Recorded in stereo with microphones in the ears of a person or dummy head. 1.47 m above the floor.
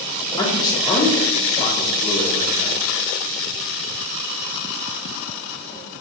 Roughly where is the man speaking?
Left.